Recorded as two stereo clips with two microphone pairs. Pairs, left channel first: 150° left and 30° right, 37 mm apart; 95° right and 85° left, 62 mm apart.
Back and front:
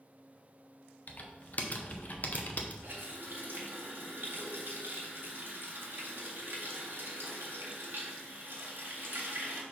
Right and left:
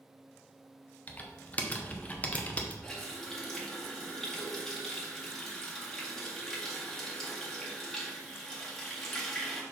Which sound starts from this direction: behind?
Typing on a keyboard, at 1.1 s.